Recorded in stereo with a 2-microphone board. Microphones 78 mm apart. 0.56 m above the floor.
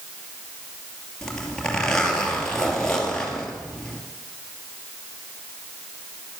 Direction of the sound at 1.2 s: 10° left (ahead or behind).